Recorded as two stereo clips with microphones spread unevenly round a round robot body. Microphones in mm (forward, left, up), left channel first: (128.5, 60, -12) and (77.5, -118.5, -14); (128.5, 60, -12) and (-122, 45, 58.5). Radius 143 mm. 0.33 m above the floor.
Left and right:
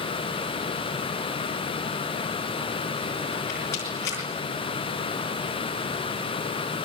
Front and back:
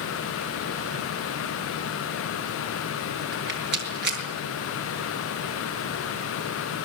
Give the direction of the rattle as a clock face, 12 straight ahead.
8 o'clock.